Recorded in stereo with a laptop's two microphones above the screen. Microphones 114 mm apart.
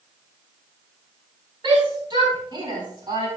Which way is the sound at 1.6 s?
45° right (ahead or behind).